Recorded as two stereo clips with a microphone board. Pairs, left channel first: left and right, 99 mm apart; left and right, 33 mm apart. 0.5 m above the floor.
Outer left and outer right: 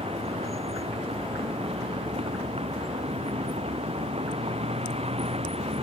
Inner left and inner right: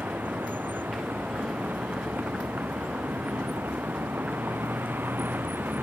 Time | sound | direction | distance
0.0 | a vehicle | 85° right | ?